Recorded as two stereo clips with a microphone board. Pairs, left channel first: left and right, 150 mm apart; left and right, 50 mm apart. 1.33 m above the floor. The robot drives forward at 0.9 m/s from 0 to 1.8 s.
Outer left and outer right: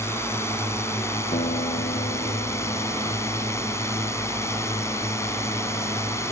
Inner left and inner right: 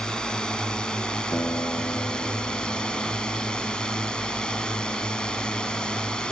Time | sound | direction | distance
0.0 | a drone | 20° left (ahead or behind) | ?
1.3 | a guitar | 70° left (ahead or behind) | ?